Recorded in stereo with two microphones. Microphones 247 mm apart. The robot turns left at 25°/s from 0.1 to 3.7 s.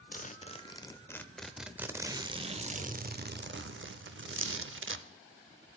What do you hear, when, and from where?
0.1 s a zipper: 35° left, 0.5 m; by 5.1 s 55° right, 0.5 m